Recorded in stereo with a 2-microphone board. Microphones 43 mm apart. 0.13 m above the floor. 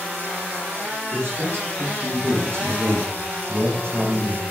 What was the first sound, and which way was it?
A man speaking, 60° right (ahead or behind).